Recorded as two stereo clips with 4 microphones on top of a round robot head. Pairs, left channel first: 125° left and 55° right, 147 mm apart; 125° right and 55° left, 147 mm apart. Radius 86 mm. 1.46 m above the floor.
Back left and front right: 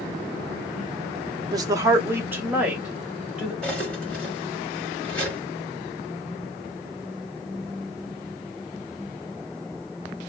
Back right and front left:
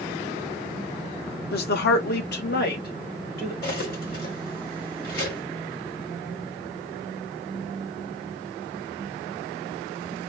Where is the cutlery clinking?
150° right, 1.6 m.